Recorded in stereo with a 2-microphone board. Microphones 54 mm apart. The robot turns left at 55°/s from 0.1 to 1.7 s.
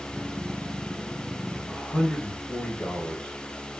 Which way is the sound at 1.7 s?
20° left (ahead or behind).